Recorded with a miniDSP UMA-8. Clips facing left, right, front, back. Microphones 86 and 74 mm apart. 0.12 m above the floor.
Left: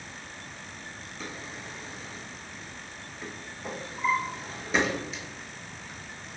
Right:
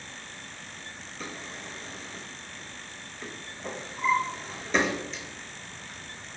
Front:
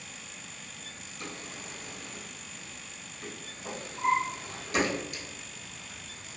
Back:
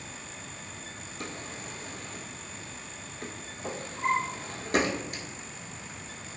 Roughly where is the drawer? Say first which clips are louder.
Right 1 dB, back 2 dB; behind.